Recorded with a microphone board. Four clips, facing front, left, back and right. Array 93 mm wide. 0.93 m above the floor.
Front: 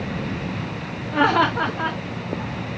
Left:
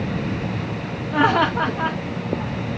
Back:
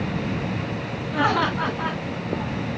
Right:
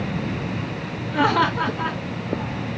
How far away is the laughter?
About 2.5 m.